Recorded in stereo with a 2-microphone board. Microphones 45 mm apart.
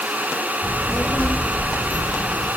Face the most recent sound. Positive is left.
turn(degrees=50)  # may be behind; listen again after turning